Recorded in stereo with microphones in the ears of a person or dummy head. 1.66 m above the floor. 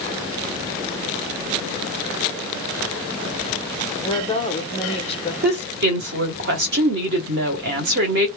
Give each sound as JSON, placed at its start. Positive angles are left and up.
{"t": 4.0, "sound": "a woman speaking", "side_deg": 30, "distance_m": 1.0}
{"t": 5.4, "sound": "a woman speaking", "side_deg": -55, "distance_m": 1.1}